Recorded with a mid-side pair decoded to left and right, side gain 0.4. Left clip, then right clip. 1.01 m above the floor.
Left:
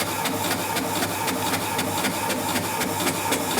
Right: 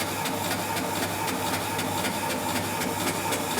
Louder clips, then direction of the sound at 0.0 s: Left 3 dB; 45° left.